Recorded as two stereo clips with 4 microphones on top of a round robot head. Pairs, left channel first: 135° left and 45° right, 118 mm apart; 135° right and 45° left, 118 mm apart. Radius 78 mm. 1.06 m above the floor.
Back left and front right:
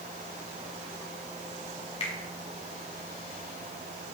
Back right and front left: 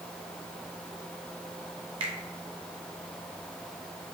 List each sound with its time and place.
2.0 s a finger snap: 90° left, 1.5 m